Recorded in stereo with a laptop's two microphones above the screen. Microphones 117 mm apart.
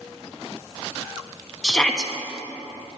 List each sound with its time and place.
1.6 s a shout: 5° left (ahead or behind), 1.3 m